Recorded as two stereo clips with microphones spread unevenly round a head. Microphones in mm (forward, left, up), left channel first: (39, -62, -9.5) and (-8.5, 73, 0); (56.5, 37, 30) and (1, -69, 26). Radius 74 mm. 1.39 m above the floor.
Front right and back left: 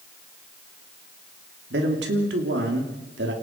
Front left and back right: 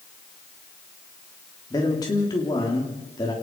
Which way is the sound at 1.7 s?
130° left.